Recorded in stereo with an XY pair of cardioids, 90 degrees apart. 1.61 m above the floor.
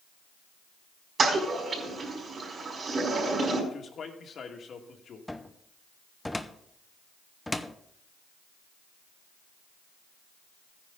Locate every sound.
1.2 s a toilet flushing: 50° right, 4.5 m
3.7 s a man speaking: 60° left, 2 m
5.3 s a cupboard door: 10° left, 0.8 m